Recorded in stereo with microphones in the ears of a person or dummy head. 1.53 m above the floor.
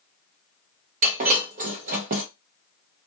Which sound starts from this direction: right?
Breaking glass, at 1.0 s.